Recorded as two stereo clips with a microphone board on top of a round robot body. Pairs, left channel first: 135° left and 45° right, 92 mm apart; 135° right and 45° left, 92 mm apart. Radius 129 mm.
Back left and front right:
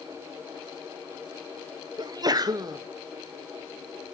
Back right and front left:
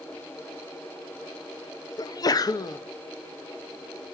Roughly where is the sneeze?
Right.